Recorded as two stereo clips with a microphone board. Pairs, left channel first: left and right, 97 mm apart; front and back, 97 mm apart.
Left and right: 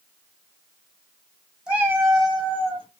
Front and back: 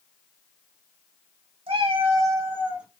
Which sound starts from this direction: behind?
A cat meowing, at 1.7 s.